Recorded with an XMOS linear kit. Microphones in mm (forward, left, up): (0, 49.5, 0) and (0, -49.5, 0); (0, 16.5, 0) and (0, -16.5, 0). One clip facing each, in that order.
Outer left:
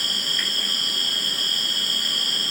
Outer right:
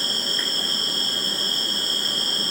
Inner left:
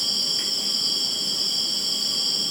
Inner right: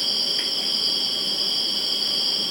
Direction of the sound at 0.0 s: 30° right (ahead or behind).